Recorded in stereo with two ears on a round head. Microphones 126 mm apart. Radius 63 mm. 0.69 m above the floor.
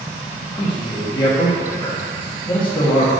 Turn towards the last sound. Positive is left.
turn(degrees=30)  # may be behind; listen again after turning